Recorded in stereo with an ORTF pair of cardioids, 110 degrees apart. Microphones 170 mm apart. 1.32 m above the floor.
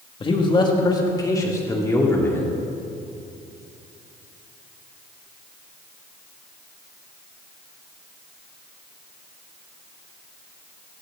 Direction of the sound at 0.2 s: 30° left.